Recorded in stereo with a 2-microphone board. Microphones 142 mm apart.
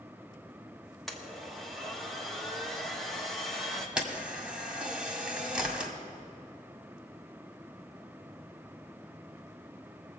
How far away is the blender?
About 1.5 m.